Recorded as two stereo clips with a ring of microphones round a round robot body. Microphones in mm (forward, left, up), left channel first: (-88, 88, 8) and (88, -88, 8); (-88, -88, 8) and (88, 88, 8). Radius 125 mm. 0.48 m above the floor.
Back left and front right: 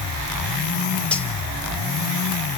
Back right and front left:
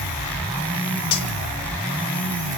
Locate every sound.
1.1 s cutlery clinking: 140° right, 1.2 m